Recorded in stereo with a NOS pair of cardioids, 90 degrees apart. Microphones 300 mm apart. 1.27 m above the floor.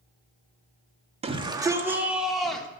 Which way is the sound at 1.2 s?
20° right.